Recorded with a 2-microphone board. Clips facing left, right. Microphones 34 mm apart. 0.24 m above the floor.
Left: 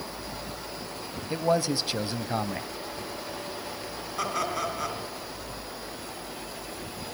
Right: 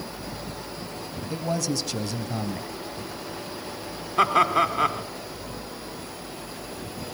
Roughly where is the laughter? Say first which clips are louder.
Right 10 dB; right.